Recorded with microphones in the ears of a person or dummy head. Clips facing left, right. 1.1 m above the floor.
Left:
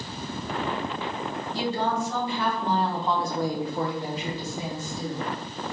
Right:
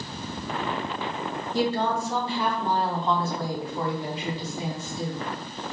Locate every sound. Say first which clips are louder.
1.5 s a woman speaking: right 2 dB; 45° right (ahead or behind), 1.0 m; by 5.3 s 50° left (ahead or behind), 1.6 m